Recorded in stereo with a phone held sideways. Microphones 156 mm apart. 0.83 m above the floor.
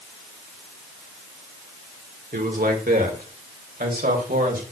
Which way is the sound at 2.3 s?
65° right (ahead or behind).